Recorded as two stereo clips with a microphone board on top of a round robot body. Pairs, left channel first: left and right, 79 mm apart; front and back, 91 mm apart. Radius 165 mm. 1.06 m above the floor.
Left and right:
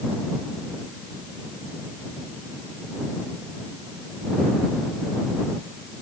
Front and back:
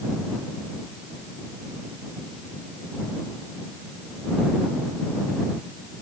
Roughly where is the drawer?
No drawer in this recording.